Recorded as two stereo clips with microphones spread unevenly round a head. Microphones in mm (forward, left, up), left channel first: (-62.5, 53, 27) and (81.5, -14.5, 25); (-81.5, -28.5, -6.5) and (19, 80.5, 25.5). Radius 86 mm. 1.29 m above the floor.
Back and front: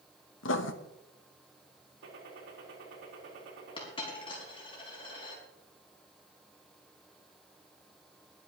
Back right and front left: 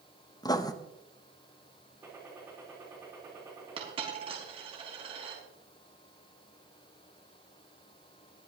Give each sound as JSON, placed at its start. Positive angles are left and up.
{"t": 0.4, "sound": "writing", "azimuth_deg": 160, "distance_m": 1.0}
{"t": 2.0, "sound": "a gunshot", "azimuth_deg": -35, "distance_m": 4.0}
{"t": 3.8, "sound": "a dropped coin", "azimuth_deg": 95, "distance_m": 4.5}